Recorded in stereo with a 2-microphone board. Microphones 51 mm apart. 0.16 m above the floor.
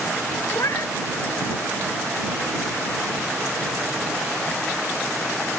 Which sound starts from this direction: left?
A cat meowing, at 0.5 s.